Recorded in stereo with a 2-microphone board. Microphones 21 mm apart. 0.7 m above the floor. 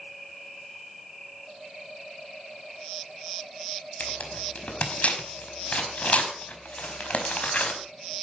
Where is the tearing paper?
80° left, 4.5 m.